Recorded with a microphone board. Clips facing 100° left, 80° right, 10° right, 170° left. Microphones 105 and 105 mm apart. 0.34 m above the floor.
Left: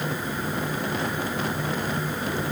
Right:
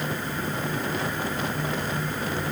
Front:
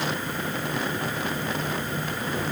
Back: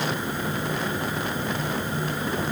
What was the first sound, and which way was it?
Only background noise.